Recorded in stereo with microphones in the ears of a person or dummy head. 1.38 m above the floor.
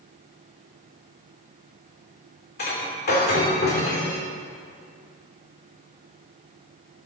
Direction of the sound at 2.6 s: 50° left (ahead or behind).